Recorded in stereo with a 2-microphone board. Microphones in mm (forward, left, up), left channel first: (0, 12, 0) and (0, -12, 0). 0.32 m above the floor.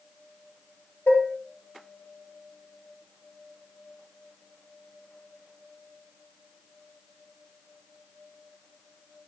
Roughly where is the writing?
No writing in this recording.